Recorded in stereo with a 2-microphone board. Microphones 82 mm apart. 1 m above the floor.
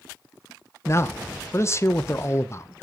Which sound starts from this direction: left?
A man speaking, at 0.8 s.